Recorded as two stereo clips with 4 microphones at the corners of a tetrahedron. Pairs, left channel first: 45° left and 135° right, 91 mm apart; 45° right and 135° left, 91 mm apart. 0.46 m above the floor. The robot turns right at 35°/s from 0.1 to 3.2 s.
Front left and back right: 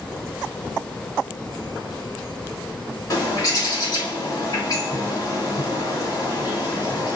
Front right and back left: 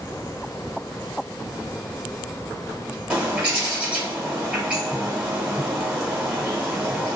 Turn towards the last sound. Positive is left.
turn(degrees=60)